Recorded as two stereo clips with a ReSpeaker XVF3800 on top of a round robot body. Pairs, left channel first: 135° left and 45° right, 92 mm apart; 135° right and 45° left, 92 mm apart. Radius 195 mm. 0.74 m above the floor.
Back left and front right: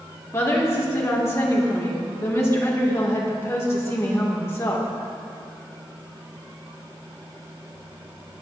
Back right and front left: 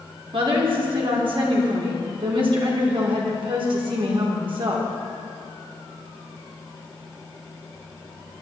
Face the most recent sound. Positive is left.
turn(degrees=75)